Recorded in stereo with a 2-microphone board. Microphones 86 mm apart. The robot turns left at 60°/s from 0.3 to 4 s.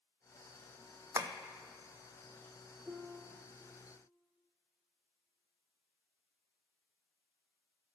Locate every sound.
1.1 s tapping: 30° right (ahead or behind), 0.8 m; by 1.3 s 40° right (ahead or behind), 0.8 m
2.9 s a piano: 25° right, 0.8 m; by 3.6 s 70° right, 0.8 m